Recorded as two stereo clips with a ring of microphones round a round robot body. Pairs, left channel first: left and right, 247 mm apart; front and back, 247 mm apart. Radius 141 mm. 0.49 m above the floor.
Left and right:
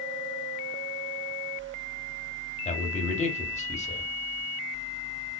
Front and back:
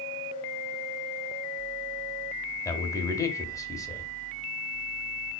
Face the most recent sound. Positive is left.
turn(degrees=65)